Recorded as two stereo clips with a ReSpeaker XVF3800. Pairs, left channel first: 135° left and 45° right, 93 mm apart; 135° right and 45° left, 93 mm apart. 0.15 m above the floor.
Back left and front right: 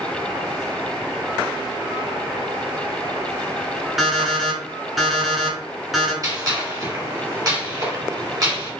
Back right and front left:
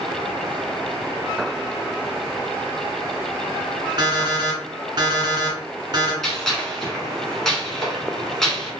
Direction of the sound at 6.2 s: 50° right.